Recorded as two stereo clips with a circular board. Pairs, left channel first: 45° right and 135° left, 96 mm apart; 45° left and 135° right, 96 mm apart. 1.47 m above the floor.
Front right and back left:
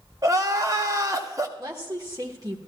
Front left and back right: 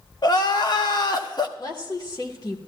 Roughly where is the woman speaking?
Left.